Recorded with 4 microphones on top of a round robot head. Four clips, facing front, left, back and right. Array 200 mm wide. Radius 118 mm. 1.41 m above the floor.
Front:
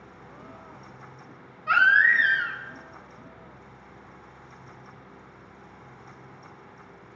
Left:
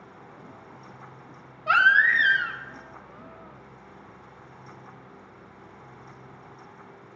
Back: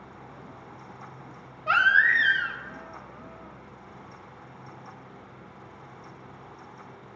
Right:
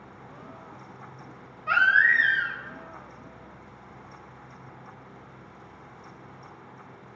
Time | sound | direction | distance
1.7 | a baby crying | 135° left | 0.9 m